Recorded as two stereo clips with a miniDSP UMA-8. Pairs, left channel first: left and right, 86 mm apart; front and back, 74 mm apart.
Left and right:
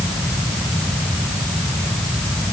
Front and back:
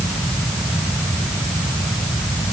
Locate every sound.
Only background noise.